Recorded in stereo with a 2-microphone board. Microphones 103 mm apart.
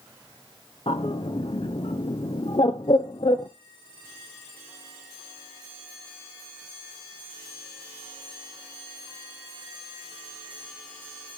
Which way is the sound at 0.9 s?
60° left (ahead or behind).